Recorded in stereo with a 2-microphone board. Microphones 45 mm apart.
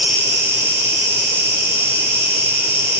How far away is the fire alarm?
No fire alarm in this recording.